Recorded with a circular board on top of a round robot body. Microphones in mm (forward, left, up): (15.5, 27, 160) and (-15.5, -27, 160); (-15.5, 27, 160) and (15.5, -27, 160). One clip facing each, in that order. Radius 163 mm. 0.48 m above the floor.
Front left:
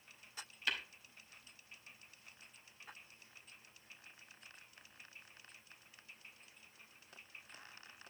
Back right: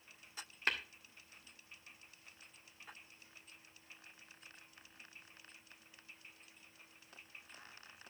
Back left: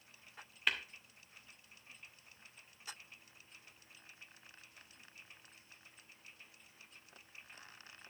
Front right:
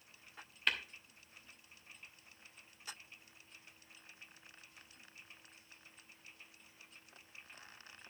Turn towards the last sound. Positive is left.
turn(degrees=-155)